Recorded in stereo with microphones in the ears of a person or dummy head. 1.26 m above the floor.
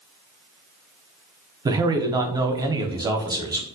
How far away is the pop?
I don't hear a pop.